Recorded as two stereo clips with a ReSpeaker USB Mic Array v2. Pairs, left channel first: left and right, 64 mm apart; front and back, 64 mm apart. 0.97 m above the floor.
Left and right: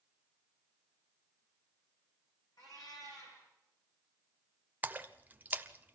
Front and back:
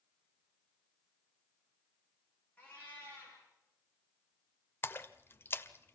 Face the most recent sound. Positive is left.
turn(degrees=-40)